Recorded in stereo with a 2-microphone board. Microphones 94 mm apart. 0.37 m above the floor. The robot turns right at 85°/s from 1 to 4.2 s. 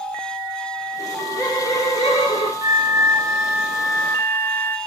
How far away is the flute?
About 1.7 m.